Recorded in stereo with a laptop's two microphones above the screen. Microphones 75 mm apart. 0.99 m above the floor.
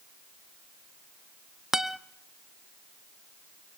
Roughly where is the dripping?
I don't hear dripping.